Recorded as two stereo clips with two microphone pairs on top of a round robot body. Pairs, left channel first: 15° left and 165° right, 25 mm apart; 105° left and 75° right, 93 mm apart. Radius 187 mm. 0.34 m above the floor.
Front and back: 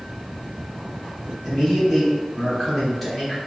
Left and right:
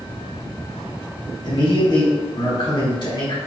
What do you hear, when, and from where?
1.4 s a man speaking: 95° left, 2.0 m